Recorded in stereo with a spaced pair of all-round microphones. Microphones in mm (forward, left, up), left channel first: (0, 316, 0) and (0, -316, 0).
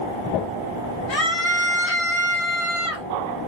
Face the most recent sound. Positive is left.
turn(degrees=45)  # may be behind; listen again after turning